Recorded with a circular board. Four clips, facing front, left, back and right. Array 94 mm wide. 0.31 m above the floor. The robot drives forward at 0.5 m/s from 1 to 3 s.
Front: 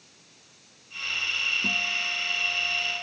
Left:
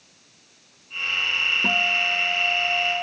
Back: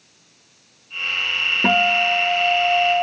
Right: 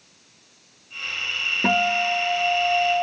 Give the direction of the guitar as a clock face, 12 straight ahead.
5 o'clock.